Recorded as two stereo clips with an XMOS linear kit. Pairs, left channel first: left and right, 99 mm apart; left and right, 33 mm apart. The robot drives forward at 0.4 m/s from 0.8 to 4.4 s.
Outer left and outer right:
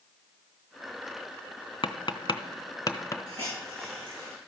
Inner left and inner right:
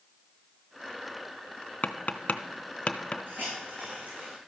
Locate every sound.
1.8 s tapping: 60° left (ahead or behind), 0.5 m; by 3.2 s 35° left (ahead or behind), 0.8 m
3.3 s a hiss: 70° right (ahead or behind), 5.5 m; by 4.4 s 65° right (ahead or behind), 5.5 m